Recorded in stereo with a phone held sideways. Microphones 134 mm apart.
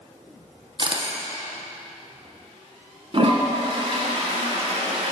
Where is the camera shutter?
40° right (ahead or behind), 1.0 m.